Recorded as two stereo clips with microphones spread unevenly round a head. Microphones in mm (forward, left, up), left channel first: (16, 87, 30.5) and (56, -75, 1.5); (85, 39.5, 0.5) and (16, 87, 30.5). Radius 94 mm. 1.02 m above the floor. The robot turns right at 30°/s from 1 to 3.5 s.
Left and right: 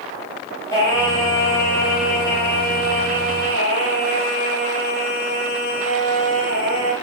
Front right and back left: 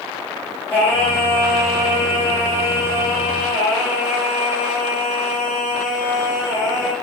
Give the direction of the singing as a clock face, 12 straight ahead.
11 o'clock.